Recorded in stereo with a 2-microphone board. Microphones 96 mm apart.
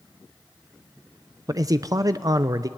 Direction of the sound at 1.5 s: 40° right (ahead or behind).